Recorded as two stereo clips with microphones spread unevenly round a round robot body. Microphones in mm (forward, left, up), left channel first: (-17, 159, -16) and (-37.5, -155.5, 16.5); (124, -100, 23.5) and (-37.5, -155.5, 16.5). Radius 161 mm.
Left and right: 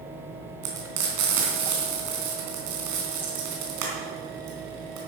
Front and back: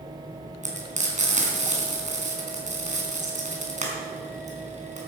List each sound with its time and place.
0.6 s frying: 120° right, 4 m